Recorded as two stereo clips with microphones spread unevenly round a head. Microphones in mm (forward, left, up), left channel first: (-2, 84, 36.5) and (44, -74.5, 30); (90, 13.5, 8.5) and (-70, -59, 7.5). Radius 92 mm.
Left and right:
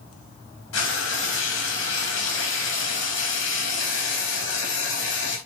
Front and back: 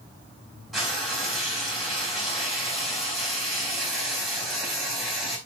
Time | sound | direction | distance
0.7 | frying | 115° left | 4 m